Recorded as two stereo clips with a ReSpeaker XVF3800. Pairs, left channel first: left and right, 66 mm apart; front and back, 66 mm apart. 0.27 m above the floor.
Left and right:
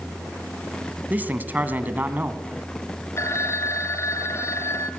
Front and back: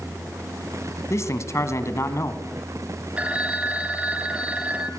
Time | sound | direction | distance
1.1 | a man speaking | 30° right | 2 m
3.2 | a phone ringing | 115° left | 1.5 m